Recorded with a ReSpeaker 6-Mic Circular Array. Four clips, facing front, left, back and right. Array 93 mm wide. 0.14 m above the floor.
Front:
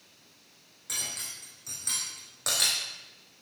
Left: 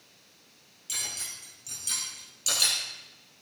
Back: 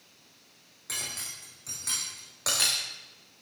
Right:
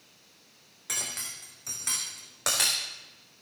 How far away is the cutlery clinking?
About 4.5 m.